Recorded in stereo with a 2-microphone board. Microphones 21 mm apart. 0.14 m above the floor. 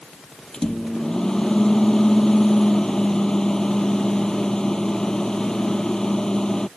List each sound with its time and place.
0.5 s a microwave: 25° left (ahead or behind)